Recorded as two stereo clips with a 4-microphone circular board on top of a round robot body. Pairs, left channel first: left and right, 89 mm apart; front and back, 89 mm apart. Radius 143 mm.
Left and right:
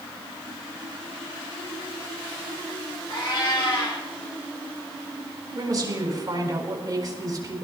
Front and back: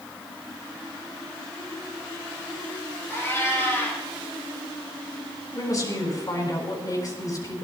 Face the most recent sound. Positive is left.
turn(degrees=-45)